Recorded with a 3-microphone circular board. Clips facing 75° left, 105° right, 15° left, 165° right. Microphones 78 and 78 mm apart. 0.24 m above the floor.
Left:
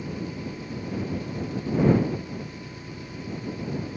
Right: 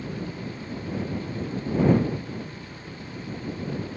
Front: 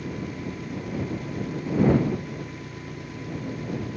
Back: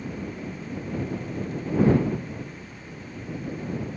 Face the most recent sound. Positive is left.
turn(degrees=5)